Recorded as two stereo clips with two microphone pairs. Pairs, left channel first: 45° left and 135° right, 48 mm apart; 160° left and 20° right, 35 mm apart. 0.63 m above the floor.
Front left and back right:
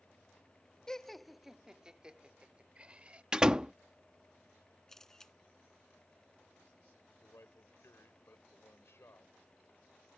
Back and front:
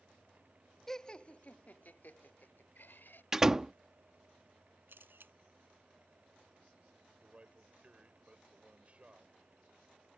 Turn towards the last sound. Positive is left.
turn(degrees=30)